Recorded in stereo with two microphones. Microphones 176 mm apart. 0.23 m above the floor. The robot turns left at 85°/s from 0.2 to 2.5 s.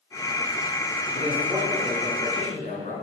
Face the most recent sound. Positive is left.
turn(degrees=125)